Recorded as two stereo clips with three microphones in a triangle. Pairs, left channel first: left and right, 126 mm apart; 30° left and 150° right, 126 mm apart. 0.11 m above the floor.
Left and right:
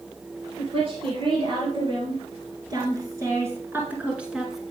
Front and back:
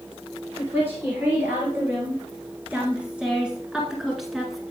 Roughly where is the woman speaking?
Right.